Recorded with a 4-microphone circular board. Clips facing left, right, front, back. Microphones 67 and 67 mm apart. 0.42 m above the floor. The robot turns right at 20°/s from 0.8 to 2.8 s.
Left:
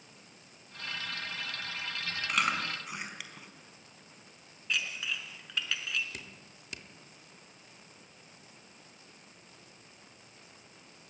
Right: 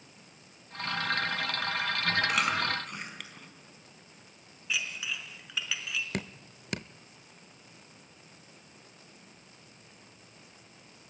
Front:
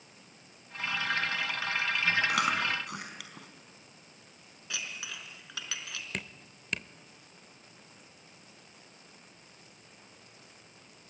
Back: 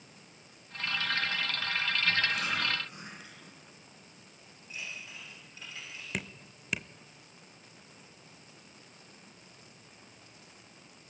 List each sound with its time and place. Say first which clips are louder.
2.3 s chewing: right 3 dB, front 4 dB; 5° right, 4.5 m; by 3.5 s 5° left, 4.5 m
4.7 s dishes clattering: even, front 3 dB; 5° right, 3.5 m
6.1 s dripping: right 10 dB, back 1 dB; 95° right, 0.6 m